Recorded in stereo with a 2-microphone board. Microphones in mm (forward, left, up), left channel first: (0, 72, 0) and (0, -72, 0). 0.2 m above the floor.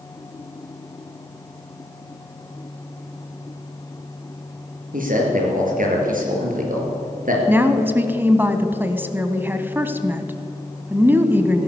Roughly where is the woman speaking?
Centre.